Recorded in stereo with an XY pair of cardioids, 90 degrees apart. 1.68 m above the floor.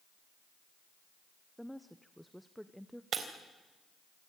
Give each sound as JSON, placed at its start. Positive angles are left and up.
{"t": 1.6, "sound": "a woman speaking", "azimuth_deg": 0, "distance_m": 0.9}
{"t": 3.1, "sound": "breaking glass", "azimuth_deg": -60, "distance_m": 3.5}